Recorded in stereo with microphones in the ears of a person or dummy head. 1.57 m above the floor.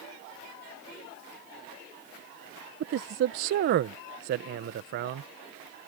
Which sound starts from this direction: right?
A man speaking, at 2.8 s.